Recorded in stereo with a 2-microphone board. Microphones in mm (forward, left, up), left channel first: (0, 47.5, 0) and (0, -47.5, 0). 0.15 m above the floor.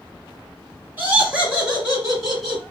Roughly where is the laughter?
Centre.